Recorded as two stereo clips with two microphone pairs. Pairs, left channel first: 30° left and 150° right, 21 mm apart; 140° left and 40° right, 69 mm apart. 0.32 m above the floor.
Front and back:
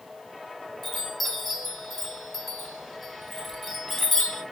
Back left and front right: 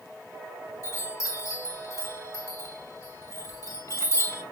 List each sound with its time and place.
0.8 s a chime: 130° left, 1.9 m